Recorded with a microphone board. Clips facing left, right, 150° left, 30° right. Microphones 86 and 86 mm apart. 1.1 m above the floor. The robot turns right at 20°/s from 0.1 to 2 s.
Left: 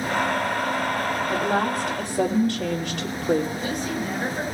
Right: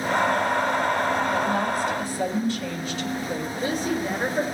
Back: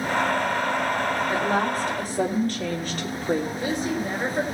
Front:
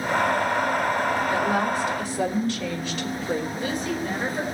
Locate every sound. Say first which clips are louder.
1.3 s a woman speaking: left 1 dB, even; 90° left, 3.5 m; by 3.5 s 105° left, 3.5 m
3.5 s a woman speaking: right 2 dB, back 1 dB; 145° right, 4 m